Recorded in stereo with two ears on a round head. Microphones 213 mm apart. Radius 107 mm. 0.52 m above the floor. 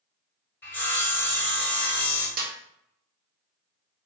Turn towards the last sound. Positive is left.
turn(degrees=-40)  # may be behind; listen again after turning